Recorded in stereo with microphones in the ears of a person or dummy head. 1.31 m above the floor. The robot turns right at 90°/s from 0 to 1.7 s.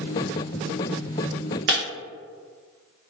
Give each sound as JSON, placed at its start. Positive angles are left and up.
{"t": 1.7, "sound": "breaking glass", "side_deg": -45, "distance_m": 0.7}